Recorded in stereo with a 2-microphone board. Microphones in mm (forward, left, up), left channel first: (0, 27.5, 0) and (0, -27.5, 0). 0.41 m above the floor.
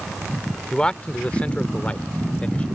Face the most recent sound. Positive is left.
turn(degrees=25)  # may be behind; listen again after turning